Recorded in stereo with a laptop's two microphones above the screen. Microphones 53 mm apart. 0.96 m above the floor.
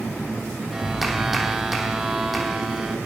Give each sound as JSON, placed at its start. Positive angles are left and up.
{"t": 0.7, "sound": "a clap", "side_deg": -5, "distance_m": 2.5}